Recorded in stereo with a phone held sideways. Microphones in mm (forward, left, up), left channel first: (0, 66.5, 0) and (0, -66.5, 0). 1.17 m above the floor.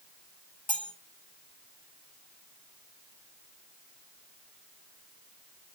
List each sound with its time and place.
0.7 s cutlery clinking: 40° left (ahead or behind), 2 m